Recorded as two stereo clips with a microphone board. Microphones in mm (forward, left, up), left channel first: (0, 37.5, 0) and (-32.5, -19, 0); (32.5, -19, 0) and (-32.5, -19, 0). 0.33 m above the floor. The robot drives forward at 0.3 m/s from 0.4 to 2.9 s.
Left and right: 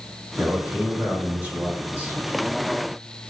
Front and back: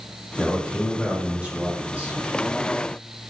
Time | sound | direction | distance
0.4 | a man speaking | 105° right | 1.4 m